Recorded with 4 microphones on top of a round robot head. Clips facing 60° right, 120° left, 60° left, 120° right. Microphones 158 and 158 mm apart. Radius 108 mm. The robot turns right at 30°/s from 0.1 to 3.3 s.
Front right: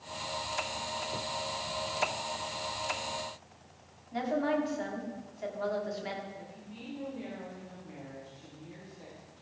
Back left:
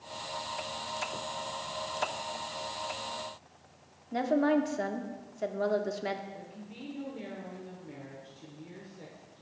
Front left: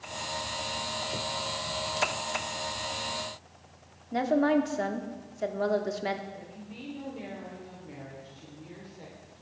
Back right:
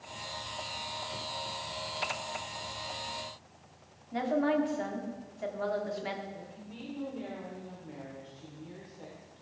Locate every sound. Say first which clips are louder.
4.1 s a woman speaking: back left 4 dB, front left 4 dB; 95° left, 1.4 m
6.3 s a woman speaking: back left 1 dB, front left 2 dB; 140° left, 3 m